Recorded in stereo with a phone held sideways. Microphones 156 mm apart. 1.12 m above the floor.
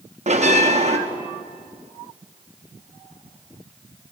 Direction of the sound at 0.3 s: 45° right (ahead or behind).